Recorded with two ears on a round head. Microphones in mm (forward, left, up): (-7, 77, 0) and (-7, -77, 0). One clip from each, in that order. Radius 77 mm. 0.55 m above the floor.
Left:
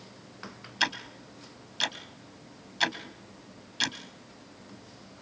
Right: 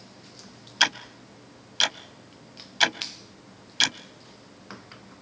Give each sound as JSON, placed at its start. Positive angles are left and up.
{"t": 0.8, "sound": "ticking", "side_deg": -30, "distance_m": 0.8}